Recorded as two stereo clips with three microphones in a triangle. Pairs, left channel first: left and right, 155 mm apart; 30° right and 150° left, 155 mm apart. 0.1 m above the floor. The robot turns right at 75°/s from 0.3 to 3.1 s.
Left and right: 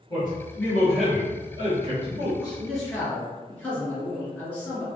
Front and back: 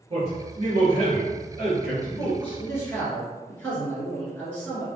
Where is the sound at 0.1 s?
135° left, 1.8 m; by 2.6 s 55° right, 1.8 m.